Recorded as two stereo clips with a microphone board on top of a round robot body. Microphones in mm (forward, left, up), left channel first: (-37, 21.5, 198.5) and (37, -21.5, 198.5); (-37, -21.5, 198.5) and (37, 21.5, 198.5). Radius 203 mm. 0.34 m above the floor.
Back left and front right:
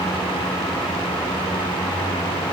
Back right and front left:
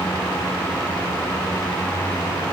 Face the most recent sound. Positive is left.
No sound to turn to.